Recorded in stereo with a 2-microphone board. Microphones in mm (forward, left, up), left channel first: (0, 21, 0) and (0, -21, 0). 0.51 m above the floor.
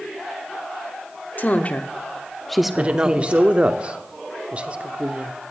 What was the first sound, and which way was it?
A woman speaking, 40° left (ahead or behind).